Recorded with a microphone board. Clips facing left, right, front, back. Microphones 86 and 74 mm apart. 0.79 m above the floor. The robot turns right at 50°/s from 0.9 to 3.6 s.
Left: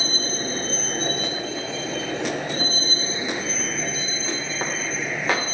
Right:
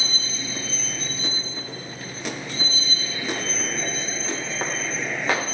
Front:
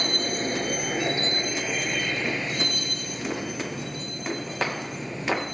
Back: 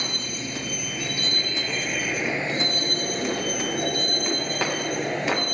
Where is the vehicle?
45° left; by 5.5 s straight behind.